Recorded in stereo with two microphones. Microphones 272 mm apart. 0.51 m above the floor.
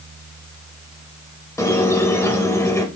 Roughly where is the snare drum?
No snare drum in this recording.